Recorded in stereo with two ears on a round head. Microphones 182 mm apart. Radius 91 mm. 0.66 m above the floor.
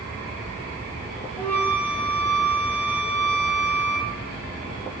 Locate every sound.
1.4 s a flute: 10° left (ahead or behind), 1.3 m